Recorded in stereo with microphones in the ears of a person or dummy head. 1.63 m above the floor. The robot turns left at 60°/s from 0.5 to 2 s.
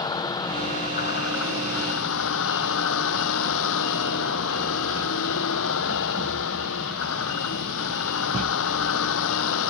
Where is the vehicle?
160° left; by 9.7 s 70° left.